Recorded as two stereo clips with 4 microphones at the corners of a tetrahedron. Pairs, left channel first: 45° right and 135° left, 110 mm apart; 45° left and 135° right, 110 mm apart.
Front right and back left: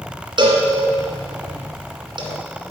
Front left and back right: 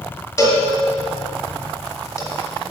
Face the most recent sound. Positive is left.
turn(degrees=100)